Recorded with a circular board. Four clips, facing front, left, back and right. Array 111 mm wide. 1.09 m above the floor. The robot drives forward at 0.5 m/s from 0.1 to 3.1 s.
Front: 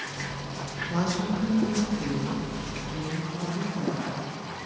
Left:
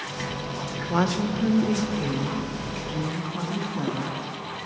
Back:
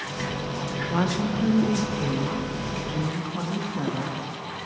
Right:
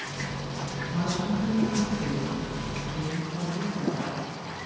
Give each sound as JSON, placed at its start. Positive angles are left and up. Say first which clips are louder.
{"t": 0.9, "sound": "a woman speaking", "louder": "left 5 dB, back 2 dB", "azimuth_deg": 100, "distance_m": 0.7}